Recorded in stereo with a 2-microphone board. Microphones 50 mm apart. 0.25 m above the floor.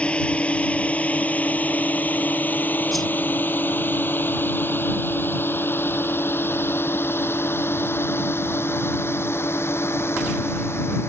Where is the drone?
25° left (ahead or behind); by 11.1 s 60° left (ahead or behind).